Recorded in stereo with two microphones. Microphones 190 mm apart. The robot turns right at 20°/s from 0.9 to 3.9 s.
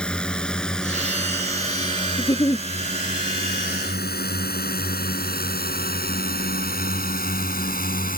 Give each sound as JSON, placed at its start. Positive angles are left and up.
{"t": 0.0, "sound": "a drone", "side_deg": 5}
{"t": 2.2, "sound": "a giggle", "side_deg": 20}